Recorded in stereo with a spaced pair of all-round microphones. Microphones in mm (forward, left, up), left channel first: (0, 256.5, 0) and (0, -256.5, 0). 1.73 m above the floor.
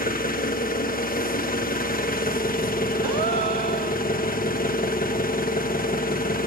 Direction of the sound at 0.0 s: 15° left (ahead or behind).